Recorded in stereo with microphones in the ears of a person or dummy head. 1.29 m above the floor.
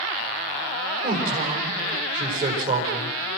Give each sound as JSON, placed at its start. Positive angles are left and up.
{"t": 1.0, "sound": "a man speaking", "side_deg": -50, "distance_m": 5.5}